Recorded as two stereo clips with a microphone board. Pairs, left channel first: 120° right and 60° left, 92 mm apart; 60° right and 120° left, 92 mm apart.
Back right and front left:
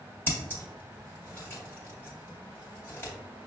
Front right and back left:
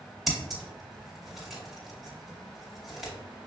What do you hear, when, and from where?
0.3 s scissors: 155° right, 1.7 m